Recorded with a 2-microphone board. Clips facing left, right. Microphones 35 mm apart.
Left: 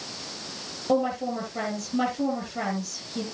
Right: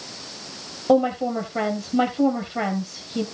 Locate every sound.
0.9 s a woman speaking: 30° right (ahead or behind), 2.5 m